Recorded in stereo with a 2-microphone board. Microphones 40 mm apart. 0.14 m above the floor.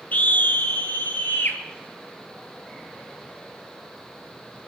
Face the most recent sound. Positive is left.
turn(degrees=55)  # may be behind; listen again after turning